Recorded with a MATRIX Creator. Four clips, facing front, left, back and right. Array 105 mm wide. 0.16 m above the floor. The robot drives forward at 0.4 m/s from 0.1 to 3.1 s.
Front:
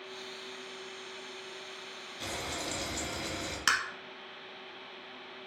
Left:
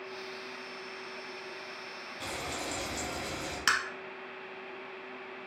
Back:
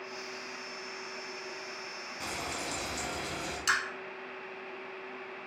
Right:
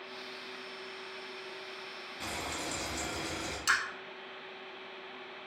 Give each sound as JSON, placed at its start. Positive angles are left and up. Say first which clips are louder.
{"t": 2.2, "sound": "frying", "louder": "left 1 dB, even", "azimuth_deg": -165, "distance_m": 1.5}
{"t": 3.7, "sound": "tapping", "louder": "left 1 dB, even", "azimuth_deg": 50, "distance_m": 1.0}